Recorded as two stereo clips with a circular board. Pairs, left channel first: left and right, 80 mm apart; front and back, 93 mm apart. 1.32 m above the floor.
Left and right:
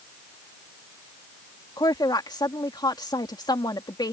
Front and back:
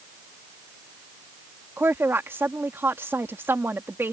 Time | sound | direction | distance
1.8 | a woman speaking | 115° left | ?